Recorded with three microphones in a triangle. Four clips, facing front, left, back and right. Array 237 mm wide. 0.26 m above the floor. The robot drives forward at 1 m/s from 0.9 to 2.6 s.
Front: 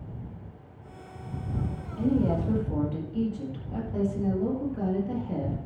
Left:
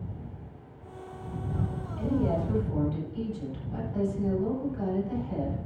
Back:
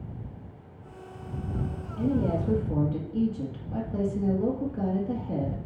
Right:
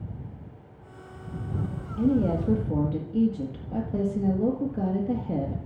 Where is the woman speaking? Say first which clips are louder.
Right 4 dB, front 1 dB; 95° right, 4.5 m; by 5.6 s 100° right, 4.5 m.